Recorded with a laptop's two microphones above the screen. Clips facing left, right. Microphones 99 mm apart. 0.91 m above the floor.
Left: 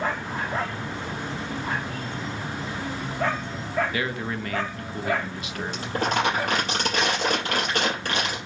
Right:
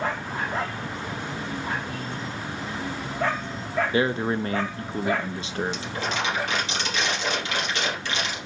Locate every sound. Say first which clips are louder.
3.9 s a man speaking: right 6 dB; 30° right (ahead or behind), 0.7 m
5.7 s crumpling: left 4 dB; 45° left (ahead or behind), 5 m